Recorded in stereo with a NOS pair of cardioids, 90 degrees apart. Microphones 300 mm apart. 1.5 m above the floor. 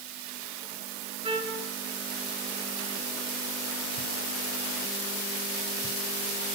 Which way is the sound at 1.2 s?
20° right.